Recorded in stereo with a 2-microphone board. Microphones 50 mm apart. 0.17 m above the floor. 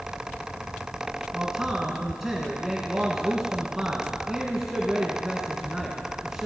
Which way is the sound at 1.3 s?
10° right (ahead or behind).